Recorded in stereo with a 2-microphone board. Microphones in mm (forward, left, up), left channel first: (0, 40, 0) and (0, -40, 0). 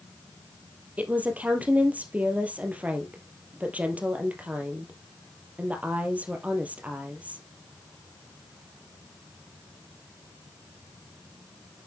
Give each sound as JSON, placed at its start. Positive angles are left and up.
{"t": 1.0, "sound": "a woman speaking", "side_deg": -20, "distance_m": 2.0}